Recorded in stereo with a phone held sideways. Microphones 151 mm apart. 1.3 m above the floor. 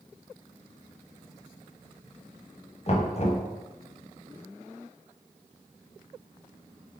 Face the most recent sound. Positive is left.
turn(degrees=45)  # may be behind; listen again after turning